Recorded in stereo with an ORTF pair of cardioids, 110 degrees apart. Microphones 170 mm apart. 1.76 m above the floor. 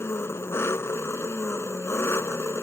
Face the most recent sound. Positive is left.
turn(degrees=15)